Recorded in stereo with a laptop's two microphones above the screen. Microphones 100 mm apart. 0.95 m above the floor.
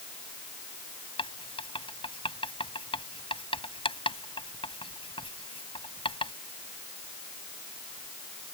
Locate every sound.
1.2 s writing: 60° left (ahead or behind)